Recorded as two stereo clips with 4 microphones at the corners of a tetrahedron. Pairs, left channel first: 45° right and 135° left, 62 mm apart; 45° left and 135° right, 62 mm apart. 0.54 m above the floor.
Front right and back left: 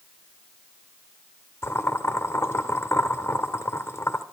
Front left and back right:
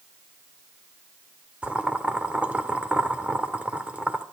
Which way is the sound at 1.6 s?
70° right.